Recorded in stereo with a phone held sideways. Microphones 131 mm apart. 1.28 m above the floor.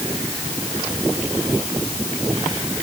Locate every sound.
Only background noise.